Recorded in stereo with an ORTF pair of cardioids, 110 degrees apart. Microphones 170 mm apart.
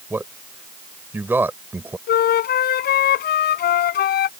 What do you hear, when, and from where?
0.1 s a man speaking: 10° right
2.1 s a flute: 65° left